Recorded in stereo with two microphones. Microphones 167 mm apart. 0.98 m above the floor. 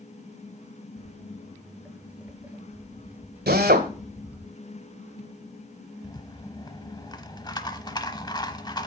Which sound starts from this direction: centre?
Footsteps, at 1.0 s.